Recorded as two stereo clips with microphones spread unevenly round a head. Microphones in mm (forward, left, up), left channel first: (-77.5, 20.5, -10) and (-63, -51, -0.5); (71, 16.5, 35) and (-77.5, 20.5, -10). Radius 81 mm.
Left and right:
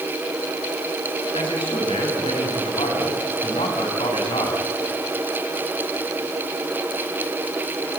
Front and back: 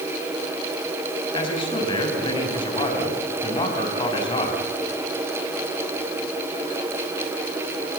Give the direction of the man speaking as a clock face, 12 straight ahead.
10 o'clock.